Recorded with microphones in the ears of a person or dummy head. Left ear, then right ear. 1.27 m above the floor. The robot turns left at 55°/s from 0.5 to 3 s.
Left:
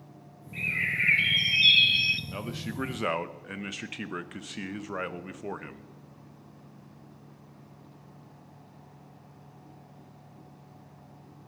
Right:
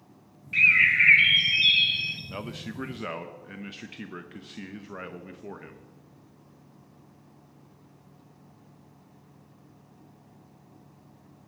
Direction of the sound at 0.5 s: 115° right.